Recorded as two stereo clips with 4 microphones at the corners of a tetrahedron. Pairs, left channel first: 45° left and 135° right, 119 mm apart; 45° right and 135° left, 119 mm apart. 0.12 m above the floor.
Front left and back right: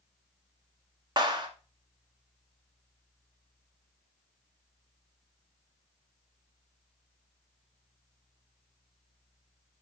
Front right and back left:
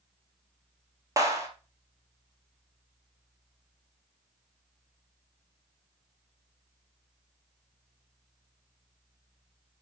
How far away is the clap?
About 1.6 m.